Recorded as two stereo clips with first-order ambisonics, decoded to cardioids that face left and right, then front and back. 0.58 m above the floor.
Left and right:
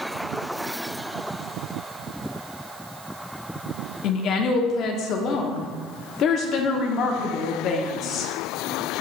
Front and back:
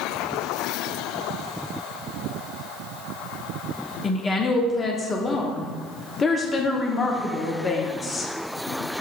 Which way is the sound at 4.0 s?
65° left.